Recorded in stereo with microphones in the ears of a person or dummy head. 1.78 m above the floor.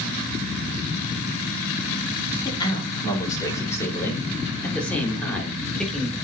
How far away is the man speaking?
About 4.5 m.